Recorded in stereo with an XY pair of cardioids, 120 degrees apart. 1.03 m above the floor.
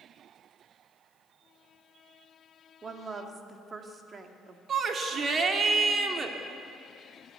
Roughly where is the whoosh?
I don't hear a whoosh.